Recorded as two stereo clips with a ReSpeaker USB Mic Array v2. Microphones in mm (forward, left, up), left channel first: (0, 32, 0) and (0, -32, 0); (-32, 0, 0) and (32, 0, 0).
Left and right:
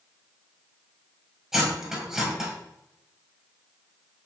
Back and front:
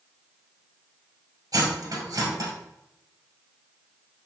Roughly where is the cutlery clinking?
Ahead.